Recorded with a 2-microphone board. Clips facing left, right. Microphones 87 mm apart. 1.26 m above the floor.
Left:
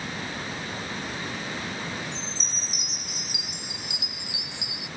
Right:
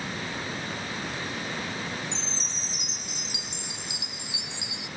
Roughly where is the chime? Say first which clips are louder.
Even; right.